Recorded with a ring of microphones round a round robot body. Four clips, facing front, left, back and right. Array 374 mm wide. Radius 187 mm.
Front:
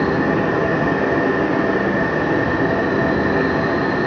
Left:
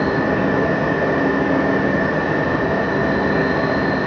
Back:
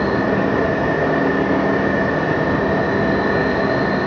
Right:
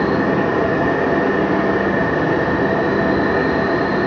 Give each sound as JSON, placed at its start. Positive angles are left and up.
{"t": 0.0, "sound": "an insect", "azimuth_deg": -50, "distance_m": 2.5}